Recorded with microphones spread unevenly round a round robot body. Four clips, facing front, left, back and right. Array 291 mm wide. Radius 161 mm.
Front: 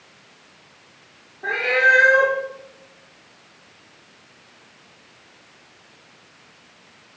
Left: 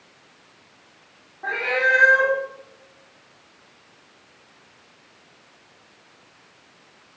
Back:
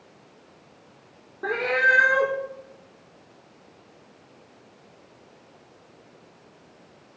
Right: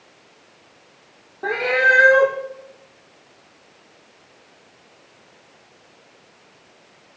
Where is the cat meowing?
130° right, 1.3 m.